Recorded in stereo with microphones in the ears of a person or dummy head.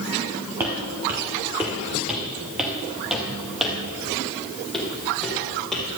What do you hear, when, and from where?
0.6 s footsteps: 10° right (ahead or behind), 1.3 m; by 5.8 s 5° left (ahead or behind), 3 m